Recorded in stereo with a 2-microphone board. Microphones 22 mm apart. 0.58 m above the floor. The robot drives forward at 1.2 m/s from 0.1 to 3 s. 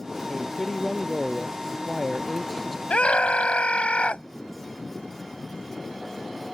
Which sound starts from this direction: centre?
A man speaking, at 0.3 s.